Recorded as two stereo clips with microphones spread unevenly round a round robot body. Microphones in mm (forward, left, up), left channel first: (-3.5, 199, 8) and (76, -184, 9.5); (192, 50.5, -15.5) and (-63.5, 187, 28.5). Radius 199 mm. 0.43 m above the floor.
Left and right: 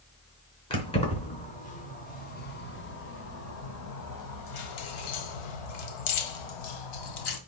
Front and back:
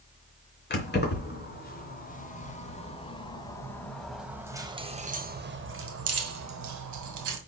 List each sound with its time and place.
0.7 s keys jangling: 25° left, 4 m; by 7.4 s 140° left, 2 m